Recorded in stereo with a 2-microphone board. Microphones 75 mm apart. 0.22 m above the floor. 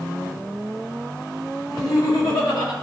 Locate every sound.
1.7 s laughter: 65° left (ahead or behind), 3.5 m; by 2.7 s 70° left (ahead or behind), 4 m